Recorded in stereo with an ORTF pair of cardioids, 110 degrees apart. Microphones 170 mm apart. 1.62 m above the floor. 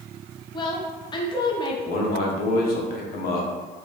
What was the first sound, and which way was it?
A woman speaking, 25° left.